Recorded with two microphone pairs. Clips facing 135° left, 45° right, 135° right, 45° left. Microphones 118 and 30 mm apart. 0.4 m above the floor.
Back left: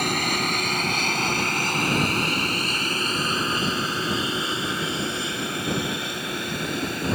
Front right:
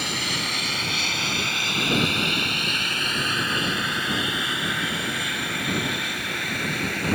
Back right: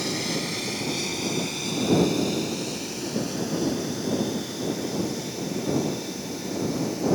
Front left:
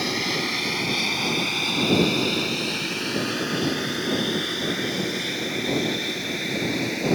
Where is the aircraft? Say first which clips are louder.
Back left 5 dB, front left 3 dB; 100° left; by 7.1 s 70° left.